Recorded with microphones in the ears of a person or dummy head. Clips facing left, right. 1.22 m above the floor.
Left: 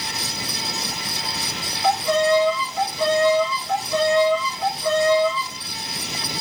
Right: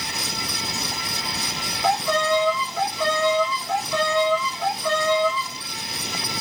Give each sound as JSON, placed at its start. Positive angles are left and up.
{"t": 1.8, "sound": "a violin", "side_deg": -70, "distance_m": 1.9}